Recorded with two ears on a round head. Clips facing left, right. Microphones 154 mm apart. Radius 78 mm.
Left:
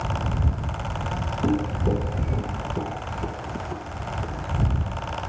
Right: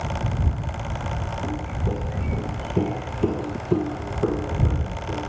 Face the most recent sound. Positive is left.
turn(degrees=-75)  # may be behind; listen again after turning